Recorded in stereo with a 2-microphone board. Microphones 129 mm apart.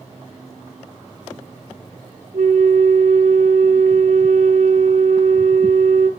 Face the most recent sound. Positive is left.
turn(degrees=-75)  # may be behind; listen again after turning